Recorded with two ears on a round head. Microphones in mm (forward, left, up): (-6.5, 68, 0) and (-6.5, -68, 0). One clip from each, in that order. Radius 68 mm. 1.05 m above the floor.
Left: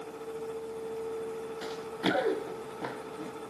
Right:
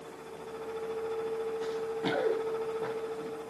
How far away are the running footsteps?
About 5.5 m.